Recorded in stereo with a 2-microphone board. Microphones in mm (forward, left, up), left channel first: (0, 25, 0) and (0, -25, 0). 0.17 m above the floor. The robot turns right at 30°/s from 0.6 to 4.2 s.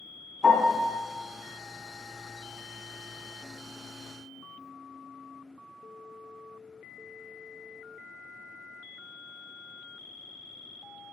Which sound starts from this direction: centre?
A piano, at 0.4 s.